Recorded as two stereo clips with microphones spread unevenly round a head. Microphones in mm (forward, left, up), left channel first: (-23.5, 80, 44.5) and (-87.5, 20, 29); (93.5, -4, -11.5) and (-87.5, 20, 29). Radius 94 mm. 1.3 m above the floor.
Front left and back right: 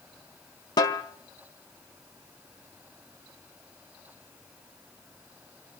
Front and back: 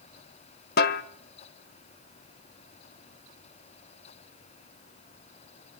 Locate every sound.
0.8 s a snare drum: 20° left, 1.4 m